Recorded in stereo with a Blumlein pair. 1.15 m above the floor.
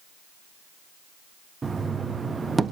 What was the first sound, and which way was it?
Knocking, 15° right.